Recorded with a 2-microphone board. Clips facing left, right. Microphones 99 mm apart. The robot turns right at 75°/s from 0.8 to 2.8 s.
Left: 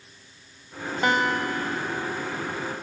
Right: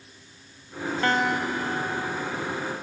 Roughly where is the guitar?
Behind.